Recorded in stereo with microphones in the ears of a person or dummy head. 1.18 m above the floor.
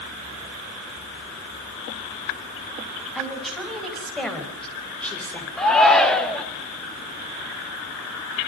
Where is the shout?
Centre (ahead or behind), 2 m.